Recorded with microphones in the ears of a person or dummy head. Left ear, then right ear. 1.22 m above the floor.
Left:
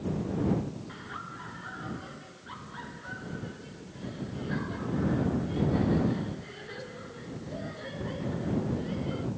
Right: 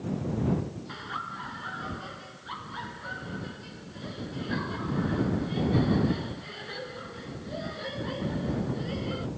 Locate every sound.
0.9 s laughter: 30° right (ahead or behind)